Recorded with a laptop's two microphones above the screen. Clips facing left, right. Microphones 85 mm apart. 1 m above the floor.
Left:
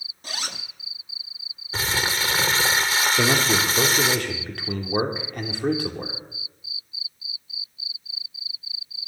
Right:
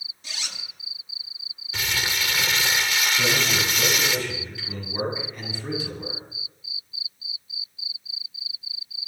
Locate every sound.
0.2 s a zipper: 45° left (ahead or behind), 0.6 m
1.7 s crumpling: 35° left (ahead or behind), 0.8 m
3.2 s a man speaking: 65° left (ahead or behind), 2 m